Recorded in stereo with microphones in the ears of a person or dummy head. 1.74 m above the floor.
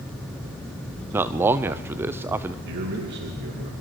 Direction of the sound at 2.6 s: 65° right (ahead or behind).